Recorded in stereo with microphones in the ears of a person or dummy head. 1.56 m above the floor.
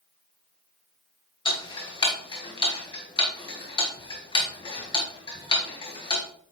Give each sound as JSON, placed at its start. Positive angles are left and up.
{"t": 1.4, "sound": "ticking", "side_deg": 25, "distance_m": 1.4}